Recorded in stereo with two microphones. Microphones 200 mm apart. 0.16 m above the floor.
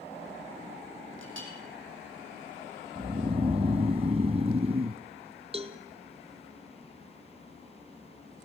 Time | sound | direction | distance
1.2 | a clink | 80° right | 4 m
3.0 | snoring | 30° right (ahead or behind) | 0.6 m
5.5 | a cowbell | 30° right (ahead or behind) | 1.2 m